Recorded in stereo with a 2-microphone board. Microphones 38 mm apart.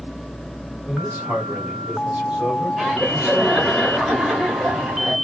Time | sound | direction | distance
0.9 | a man speaking | 40° right (ahead or behind) | 1.4 m
2.8 | laughter | 5° right (ahead or behind) | 1.7 m